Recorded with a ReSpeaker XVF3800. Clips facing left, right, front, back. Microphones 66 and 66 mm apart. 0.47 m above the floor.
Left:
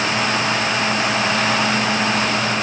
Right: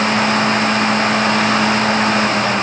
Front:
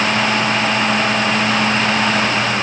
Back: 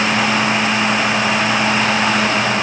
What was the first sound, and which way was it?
Only background noise.